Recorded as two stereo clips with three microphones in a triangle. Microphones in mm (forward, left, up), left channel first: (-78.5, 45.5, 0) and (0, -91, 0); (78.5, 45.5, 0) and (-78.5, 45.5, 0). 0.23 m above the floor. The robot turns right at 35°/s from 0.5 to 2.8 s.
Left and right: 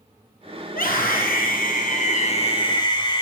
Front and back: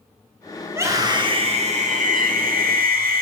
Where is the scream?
105° left, 6 m; by 3.2 s straight behind, 6 m.